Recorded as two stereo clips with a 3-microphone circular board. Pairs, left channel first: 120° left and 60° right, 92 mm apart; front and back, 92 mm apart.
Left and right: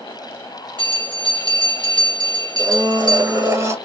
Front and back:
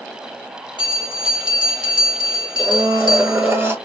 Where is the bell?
25° right, 1.6 m.